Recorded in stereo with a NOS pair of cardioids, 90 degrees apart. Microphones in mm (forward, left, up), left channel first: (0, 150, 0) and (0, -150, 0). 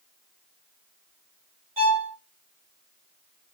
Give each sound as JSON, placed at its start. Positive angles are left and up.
{"t": 1.8, "sound": "a violin", "azimuth_deg": -20, "distance_m": 1.8}